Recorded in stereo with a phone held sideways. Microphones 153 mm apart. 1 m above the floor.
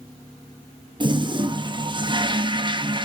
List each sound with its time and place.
1.0 s a toilet flushing: 30° right (ahead or behind), 0.8 m